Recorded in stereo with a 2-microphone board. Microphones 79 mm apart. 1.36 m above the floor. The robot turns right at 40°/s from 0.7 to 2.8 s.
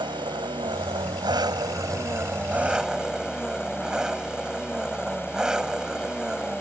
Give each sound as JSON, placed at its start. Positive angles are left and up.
{"t": 0.0, "sound": "an engine running", "azimuth_deg": -90}